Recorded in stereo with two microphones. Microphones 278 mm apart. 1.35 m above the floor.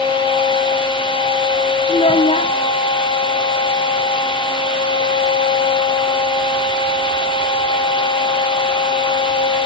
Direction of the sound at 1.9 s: 20° left (ahead or behind).